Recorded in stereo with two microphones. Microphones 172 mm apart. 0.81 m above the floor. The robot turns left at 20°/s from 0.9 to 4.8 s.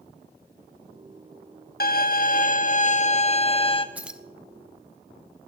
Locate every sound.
1.8 s a violin: 75° left, 0.9 m; by 3.9 s 35° left, 0.9 m
4.0 s keys jangling: 10° right (ahead or behind), 0.6 m; by 4.2 s 5° right (ahead or behind), 0.6 m